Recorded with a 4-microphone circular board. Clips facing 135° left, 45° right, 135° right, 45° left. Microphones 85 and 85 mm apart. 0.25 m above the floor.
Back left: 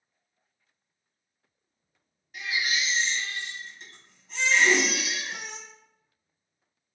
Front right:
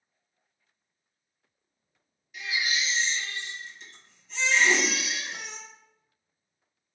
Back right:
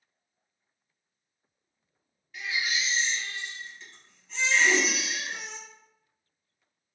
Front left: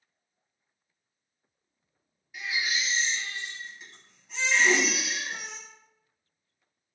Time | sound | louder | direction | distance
2.3 | a baby crying | back left 1 dB, even | 120° left | 1.0 m
4.6 | a whoosh | back left 1 dB, front left 1 dB | 65° left | 0.8 m